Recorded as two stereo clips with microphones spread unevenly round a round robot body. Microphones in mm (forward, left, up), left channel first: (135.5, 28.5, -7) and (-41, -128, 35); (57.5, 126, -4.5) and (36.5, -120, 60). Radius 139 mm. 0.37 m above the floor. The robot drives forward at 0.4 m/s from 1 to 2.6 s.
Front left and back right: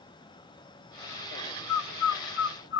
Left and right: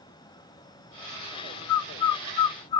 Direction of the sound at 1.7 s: 70° left.